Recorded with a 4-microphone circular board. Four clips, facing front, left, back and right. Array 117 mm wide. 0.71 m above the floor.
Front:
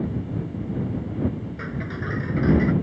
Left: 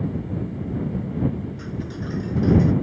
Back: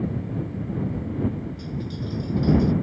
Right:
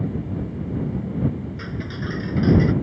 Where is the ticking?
15° right.